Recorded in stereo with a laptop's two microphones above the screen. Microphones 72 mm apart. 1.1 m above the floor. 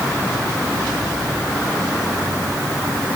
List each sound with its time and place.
Only background noise.